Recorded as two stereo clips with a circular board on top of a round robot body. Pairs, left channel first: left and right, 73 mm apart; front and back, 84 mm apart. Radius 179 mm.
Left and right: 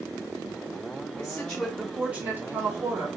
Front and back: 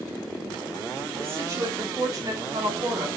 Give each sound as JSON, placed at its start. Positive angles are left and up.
{"t": 1.2, "sound": "a woman speaking", "azimuth_deg": 140, "distance_m": 0.9}